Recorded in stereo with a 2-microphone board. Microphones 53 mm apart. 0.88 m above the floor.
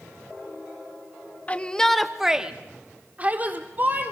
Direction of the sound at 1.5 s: 25° left (ahead or behind).